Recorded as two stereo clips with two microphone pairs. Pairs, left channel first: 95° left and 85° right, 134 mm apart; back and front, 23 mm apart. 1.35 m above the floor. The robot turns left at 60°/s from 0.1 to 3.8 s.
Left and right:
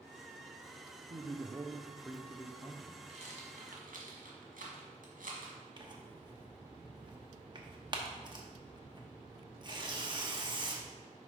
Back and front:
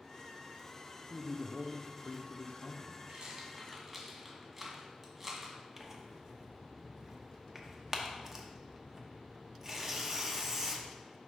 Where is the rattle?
40° right, 1.6 m; by 5.6 s 80° right, 1.6 m.